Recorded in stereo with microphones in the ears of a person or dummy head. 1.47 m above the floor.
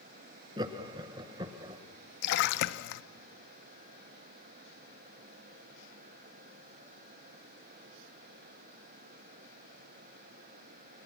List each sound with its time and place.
0.6 s laughter: 20° right (ahead or behind), 1.5 m
2.2 s a splash: 55° left (ahead or behind), 1.0 m